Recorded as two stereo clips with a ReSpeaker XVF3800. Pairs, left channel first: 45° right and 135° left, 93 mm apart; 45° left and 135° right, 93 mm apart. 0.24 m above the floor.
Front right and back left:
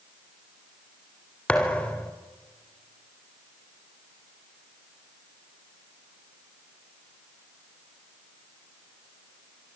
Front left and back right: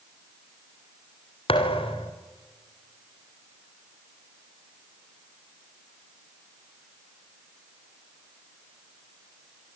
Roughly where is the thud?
Ahead left.